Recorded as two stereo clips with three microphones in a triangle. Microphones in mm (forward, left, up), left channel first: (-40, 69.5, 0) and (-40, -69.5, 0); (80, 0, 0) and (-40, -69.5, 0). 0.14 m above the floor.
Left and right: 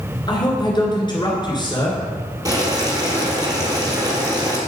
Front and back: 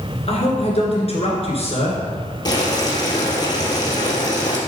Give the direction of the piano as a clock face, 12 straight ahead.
I don't hear a piano.